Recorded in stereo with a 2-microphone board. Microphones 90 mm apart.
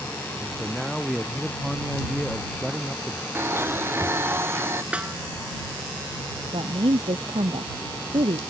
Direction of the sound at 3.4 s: 25° right (ahead or behind).